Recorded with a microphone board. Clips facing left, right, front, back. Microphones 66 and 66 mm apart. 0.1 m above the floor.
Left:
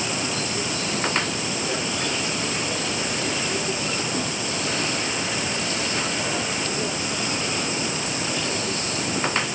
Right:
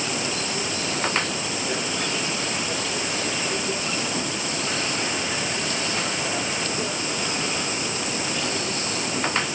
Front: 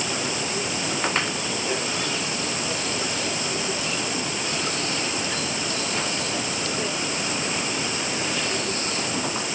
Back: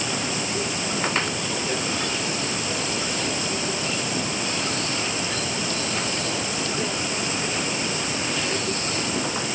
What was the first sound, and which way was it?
Only background noise.